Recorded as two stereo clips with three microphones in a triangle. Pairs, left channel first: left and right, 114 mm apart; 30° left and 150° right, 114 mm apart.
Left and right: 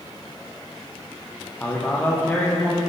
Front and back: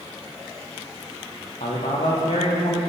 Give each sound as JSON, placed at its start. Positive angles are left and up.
{"t": 1.6, "sound": "a man speaking", "azimuth_deg": 15, "distance_m": 7.0}